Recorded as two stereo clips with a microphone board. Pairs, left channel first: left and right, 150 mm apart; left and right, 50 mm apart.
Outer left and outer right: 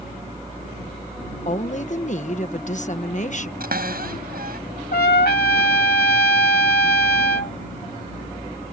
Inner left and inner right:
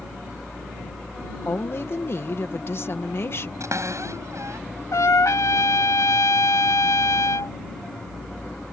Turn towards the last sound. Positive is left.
turn(degrees=85)